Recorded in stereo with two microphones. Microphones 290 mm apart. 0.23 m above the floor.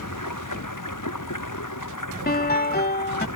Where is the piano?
30° left (ahead or behind).